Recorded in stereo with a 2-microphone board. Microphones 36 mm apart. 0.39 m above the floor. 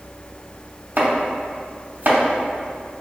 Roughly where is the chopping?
Right.